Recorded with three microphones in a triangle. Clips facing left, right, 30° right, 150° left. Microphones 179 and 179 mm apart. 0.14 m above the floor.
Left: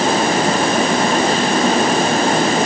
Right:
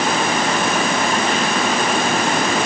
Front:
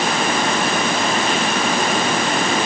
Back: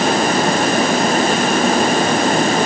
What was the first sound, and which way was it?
Only background noise.